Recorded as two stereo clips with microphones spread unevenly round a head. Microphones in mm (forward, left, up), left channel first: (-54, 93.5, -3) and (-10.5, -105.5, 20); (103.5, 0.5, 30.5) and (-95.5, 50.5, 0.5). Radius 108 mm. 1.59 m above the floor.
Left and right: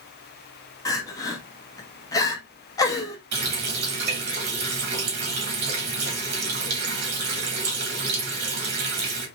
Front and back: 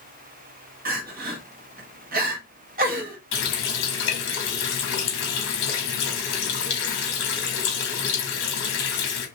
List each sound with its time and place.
0.8 s crying: 170° left, 1.0 m
3.3 s a running tap: 40° right, 1.7 m